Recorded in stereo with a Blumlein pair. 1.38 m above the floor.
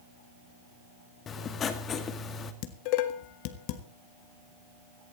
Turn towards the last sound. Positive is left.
turn(degrees=45)